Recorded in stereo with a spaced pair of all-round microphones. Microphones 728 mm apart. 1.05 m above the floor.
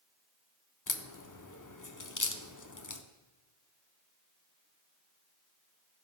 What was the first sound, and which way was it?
A crack, 25° left (ahead or behind).